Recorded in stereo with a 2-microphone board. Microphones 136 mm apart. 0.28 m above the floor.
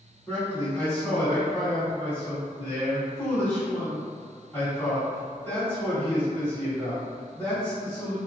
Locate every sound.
0.3 s a man speaking: 15° left (ahead or behind), 1.7 m